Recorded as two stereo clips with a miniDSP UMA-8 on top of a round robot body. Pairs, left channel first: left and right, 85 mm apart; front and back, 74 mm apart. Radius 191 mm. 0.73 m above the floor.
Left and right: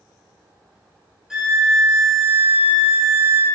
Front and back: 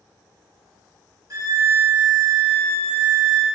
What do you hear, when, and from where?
1.3 s a violin: 170° right, 1.3 m